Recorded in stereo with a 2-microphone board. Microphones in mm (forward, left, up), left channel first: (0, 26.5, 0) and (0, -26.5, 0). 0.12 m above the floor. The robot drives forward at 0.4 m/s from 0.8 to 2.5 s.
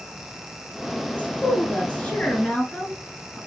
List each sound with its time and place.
1.1 s a woman speaking: 30° left (ahead or behind), 1.5 m; by 3.4 s 25° left (ahead or behind), 1.7 m